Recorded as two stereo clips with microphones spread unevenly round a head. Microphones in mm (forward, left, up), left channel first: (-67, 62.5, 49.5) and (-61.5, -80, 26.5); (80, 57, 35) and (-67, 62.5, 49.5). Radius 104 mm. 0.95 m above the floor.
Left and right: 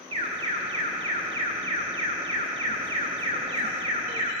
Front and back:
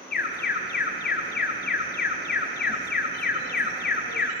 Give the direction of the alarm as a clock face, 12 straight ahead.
1 o'clock.